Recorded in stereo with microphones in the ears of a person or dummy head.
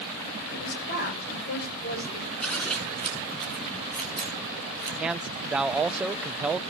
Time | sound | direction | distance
0.5 | a woman speaking | 50° left (ahead or behind) | 8.5 m
2.4 | scissors | 5° left (ahead or behind) | 3 m
5.0 | a man speaking | 10° right (ahead or behind) | 0.5 m